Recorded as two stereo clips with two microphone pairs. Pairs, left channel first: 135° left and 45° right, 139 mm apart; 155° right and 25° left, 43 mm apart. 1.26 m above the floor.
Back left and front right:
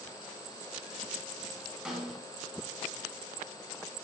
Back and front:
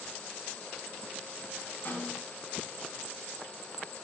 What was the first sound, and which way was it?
A snare drum, 130° right.